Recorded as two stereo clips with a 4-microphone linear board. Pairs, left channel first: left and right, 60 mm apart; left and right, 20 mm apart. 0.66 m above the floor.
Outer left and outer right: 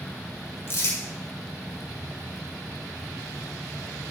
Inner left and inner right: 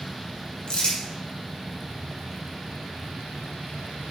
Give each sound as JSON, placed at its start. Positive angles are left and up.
{"t": 0.7, "sound": "crumpling", "side_deg": 40, "distance_m": 3.5}